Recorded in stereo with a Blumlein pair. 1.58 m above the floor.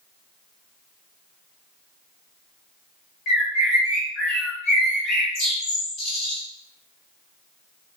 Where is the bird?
30° left, 1.0 m.